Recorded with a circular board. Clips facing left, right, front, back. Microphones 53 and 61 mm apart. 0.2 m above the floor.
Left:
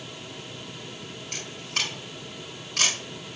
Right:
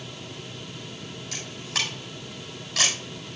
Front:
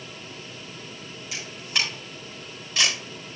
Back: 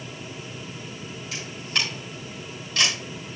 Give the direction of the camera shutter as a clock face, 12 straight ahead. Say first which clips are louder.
Right 1 dB, even; 3 o'clock.